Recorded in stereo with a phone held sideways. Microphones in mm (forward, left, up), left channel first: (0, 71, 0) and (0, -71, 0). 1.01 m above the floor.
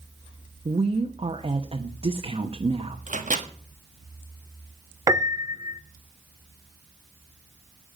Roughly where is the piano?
Right.